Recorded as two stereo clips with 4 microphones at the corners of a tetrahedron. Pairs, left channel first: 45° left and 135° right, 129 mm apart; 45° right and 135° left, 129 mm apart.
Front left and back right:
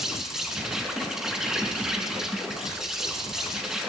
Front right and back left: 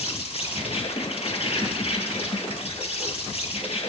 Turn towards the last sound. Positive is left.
turn(degrees=-50)